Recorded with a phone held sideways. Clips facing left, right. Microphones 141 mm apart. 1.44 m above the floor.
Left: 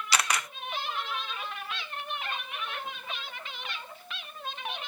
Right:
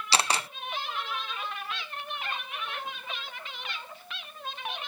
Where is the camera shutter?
30° right (ahead or behind).